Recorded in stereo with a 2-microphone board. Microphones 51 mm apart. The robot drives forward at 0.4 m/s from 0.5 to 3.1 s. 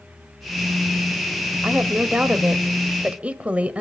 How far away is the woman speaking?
About 1.2 m.